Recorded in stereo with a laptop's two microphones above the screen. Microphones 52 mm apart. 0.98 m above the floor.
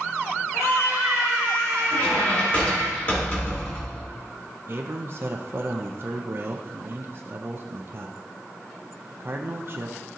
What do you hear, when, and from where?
0.5 s a scream: 80° left, 3.5 m; by 2.9 s 65° left (ahead or behind), 3 m
1.9 s a squeak: 35° left (ahead or behind), 1.4 m
4.7 s a man speaking: 45° right (ahead or behind), 0.6 m